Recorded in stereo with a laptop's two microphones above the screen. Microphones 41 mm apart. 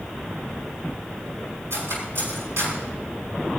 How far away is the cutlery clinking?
About 6 m.